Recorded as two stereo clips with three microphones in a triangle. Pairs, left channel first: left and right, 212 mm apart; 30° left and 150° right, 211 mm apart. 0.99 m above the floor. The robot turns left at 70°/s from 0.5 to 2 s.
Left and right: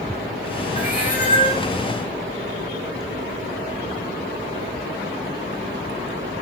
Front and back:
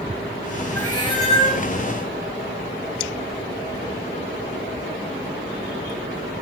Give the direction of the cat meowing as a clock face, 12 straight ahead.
8 o'clock.